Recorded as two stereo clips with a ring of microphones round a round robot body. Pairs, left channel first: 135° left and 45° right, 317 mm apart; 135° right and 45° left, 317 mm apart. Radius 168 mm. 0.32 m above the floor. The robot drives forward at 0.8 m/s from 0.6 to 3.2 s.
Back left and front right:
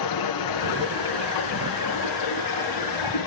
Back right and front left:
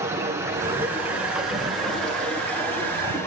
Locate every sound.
0.0 s running water: 125° left, 4.5 m; by 3.3 s 145° left, 6 m